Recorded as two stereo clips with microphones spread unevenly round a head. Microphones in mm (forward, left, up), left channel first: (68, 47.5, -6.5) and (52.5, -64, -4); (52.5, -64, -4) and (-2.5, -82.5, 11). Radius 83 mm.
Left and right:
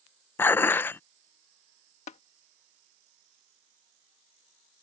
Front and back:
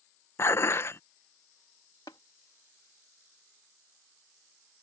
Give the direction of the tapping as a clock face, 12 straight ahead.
9 o'clock.